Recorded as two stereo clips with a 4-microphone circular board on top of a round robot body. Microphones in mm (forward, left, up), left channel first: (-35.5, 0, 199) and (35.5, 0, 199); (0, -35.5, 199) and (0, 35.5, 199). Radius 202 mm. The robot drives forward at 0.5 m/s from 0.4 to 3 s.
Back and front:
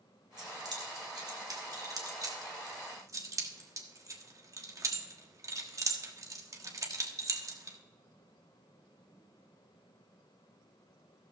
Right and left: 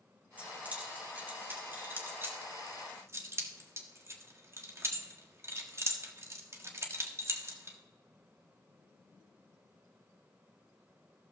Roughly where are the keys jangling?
Ahead.